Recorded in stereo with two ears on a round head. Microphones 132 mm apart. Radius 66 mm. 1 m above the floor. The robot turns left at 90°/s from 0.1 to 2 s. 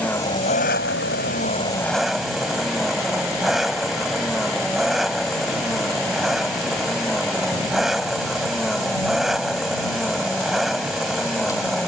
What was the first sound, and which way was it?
An engine running, 170° left.